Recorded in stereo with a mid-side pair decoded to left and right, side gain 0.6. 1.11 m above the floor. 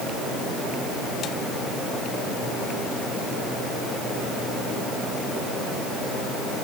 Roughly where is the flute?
I don't hear a flute.